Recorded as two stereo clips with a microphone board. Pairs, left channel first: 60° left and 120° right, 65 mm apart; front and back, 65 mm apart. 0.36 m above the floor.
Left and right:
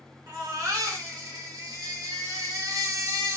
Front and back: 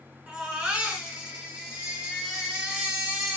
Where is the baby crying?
110° right, 1.4 m.